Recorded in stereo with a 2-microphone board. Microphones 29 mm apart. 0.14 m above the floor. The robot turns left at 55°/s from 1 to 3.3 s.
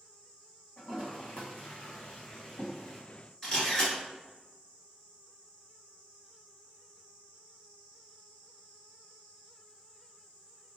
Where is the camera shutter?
15° left (ahead or behind), 1.6 m.